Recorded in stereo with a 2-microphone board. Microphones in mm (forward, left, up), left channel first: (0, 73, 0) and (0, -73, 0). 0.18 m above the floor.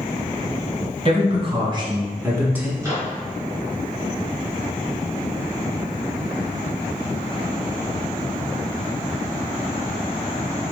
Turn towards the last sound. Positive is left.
turn(degrees=-20)  # may be behind; listen again after turning